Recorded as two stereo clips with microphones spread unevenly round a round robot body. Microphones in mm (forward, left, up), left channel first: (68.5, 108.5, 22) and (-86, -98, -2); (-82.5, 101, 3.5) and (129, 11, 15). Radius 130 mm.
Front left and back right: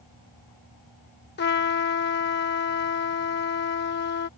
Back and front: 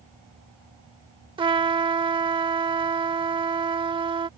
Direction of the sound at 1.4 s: 35° left.